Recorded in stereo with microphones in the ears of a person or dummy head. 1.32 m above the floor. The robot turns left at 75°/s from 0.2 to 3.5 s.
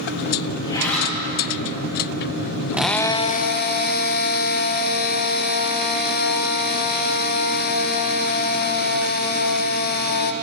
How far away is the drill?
About 0.6 m.